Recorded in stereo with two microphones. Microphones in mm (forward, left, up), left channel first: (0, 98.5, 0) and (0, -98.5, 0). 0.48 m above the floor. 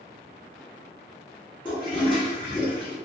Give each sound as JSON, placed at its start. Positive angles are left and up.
{"t": 1.6, "sound": "a toilet flushing", "side_deg": 25, "distance_m": 1.7}